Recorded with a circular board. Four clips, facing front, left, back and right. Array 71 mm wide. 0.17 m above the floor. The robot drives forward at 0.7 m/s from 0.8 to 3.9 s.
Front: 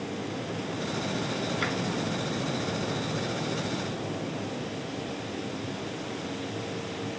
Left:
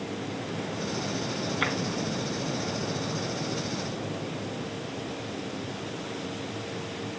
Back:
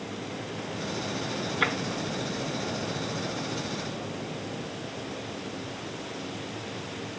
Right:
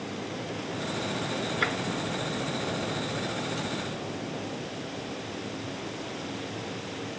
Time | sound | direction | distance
1.6 | tapping | 160° left | 1.4 m